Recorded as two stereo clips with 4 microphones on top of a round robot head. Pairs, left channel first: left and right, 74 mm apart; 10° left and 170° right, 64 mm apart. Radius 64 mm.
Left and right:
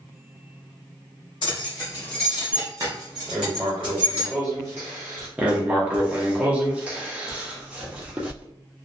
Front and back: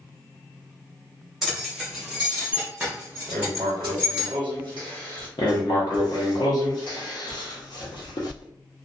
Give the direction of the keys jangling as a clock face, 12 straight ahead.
8 o'clock.